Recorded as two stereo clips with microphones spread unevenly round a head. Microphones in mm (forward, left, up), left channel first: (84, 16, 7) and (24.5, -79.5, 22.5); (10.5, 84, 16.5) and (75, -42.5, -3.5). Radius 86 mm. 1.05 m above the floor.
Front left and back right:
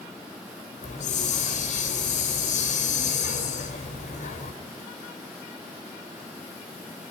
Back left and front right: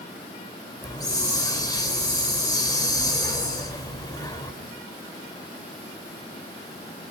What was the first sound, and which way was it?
A hiss, 55° left.